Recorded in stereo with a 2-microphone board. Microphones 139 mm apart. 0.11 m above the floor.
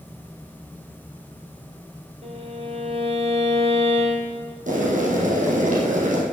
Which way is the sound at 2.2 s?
45° right (ahead or behind).